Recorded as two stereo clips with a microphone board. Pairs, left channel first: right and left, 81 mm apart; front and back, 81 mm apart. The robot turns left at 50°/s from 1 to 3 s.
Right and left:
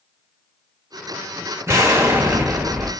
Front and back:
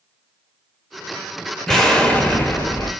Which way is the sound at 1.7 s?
85° left.